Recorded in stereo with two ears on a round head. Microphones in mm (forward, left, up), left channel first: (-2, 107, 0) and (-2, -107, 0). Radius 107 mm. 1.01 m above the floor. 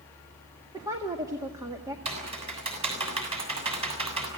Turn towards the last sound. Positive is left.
turn(degrees=-25)  # may be behind; listen again after turning